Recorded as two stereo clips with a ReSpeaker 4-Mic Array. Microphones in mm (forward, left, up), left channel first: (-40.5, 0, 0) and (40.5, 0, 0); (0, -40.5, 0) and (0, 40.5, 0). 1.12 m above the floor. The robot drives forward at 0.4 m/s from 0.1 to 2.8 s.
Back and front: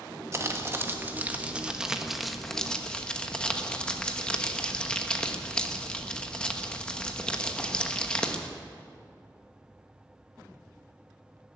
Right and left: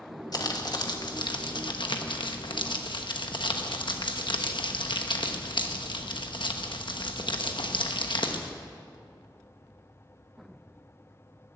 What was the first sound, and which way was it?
Crumpling, 55° right.